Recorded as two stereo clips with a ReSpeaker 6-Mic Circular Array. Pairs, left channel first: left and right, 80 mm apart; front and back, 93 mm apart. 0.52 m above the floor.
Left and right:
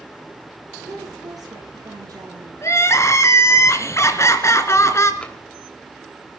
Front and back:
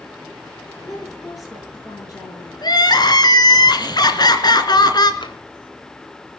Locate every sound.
0.8 s a woman speaking: 55° right, 10 m; by 2.5 s 50° right, 9 m
2.6 s crying: 40° left, 2.5 m
5.2 s tapping: 15° left, 3 m